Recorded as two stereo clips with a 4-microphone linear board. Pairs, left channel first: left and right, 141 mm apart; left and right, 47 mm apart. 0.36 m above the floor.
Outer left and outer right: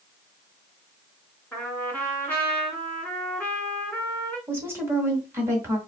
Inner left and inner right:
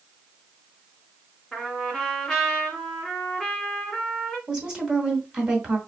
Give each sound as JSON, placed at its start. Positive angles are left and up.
{"t": 1.5, "sound": "a trumpet", "side_deg": 15, "distance_m": 1.8}
{"t": 4.5, "sound": "a woman speaking", "side_deg": -15, "distance_m": 2.0}